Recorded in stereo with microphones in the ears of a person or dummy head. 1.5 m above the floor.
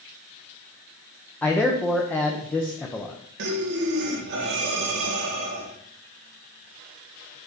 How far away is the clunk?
No clunk in this recording.